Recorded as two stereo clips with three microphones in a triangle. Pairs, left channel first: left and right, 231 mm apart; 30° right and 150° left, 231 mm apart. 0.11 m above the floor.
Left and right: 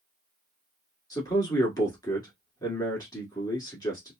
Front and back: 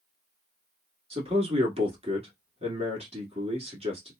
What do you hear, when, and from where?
1.1 s a man speaking: 140° left, 1.2 m